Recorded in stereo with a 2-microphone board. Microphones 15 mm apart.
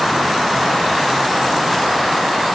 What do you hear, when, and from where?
Only background noise.